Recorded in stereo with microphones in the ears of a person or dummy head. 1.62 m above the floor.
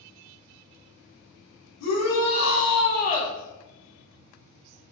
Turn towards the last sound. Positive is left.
turn(degrees=25)  # may be behind; listen again after turning